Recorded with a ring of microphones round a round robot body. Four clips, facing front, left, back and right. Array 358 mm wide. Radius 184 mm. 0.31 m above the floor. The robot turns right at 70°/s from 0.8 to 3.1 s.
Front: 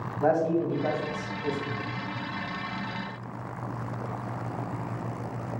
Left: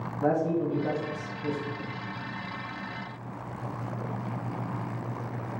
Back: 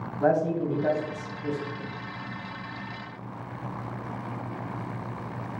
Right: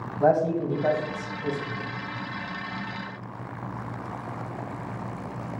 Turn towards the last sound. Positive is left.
turn(degrees=55)